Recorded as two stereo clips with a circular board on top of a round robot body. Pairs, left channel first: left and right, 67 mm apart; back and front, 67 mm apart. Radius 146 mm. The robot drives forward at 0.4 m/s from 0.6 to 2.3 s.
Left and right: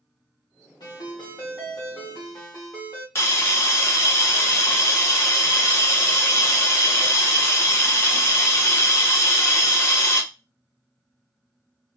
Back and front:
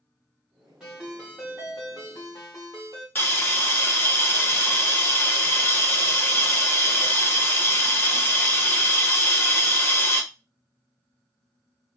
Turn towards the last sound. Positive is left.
turn(degrees=130)